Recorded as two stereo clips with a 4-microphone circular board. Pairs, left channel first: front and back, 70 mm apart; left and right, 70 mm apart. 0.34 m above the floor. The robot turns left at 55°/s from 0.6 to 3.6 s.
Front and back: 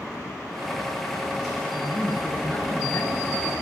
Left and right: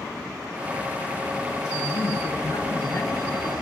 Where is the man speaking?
110° left, 5 m; by 3.5 s 15° left, 5 m.